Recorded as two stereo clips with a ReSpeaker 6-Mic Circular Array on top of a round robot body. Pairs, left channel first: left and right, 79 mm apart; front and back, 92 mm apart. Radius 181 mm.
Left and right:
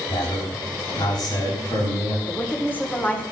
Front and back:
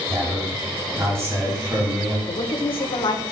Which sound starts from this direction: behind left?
A man speaking, at 0.1 s.